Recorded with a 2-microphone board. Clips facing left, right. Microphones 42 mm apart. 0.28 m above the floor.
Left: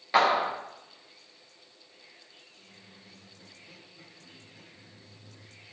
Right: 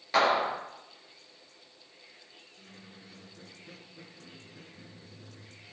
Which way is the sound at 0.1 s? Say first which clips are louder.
Left 2 dB; 10° left (ahead or behind).